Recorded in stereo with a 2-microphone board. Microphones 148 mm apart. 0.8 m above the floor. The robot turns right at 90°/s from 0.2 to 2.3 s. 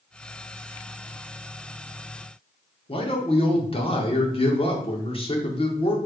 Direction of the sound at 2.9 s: 35° left (ahead or behind).